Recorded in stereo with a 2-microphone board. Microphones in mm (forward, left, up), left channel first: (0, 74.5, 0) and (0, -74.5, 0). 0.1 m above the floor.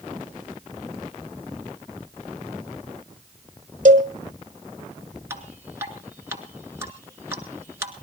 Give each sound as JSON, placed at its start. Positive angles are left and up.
{"t": 3.9, "sound": "a cowbell", "side_deg": -55, "distance_m": 1.6}
{"t": 5.3, "sound": "dripping", "side_deg": -20, "distance_m": 1.7}